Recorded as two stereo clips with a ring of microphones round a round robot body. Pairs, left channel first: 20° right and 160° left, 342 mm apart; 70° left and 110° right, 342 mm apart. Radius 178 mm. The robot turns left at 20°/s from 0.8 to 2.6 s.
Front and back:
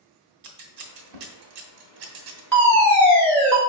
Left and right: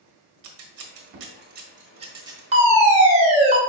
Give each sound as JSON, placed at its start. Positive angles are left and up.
{"t": 0.4, "sound": "scissors", "azimuth_deg": -160, "distance_m": 0.9}
{"t": 2.5, "sound": "a fire alarm", "azimuth_deg": -95, "distance_m": 1.5}